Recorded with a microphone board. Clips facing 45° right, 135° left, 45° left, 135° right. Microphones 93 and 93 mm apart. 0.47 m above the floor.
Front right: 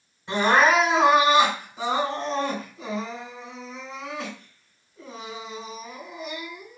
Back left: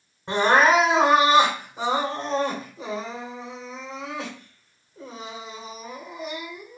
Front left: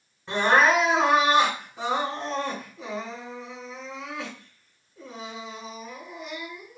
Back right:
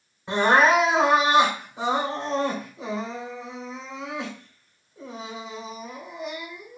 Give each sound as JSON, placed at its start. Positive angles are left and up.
{"t": 0.3, "sound": "crying", "azimuth_deg": 155, "distance_m": 1.5}